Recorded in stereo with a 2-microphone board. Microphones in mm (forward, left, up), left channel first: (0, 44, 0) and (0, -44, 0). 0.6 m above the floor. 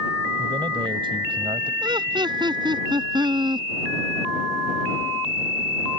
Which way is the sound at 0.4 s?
65° right (ahead or behind).